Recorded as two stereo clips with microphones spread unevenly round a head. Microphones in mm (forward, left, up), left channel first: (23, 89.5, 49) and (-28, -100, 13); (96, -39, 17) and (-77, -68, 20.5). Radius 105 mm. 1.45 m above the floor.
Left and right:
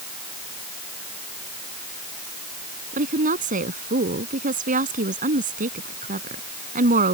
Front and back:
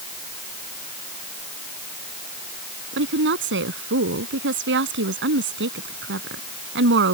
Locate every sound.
2.9 s a woman speaking: 160° right